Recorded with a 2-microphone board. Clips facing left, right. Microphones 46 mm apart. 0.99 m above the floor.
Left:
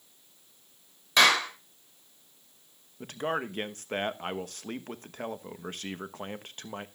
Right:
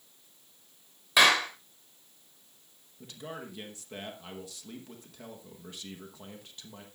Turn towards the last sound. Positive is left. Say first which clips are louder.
# left 10 dB
turn(degrees=55)  # may be behind; listen again after turning